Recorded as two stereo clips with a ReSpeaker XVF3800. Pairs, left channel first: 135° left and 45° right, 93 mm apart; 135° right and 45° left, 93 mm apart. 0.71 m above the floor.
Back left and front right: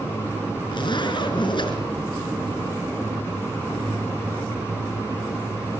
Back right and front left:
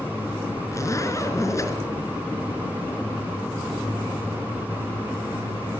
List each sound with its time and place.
0.7 s a zipper: 165° left, 3.5 m